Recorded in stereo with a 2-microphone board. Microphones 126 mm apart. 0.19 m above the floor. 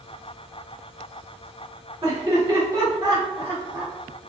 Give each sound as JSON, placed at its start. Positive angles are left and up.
{"t": 2.0, "sound": "laughter", "side_deg": -25, "distance_m": 1.3}